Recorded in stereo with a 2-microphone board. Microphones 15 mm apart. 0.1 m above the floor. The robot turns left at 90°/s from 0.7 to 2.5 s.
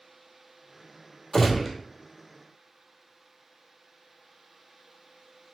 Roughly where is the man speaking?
I don't hear a man speaking.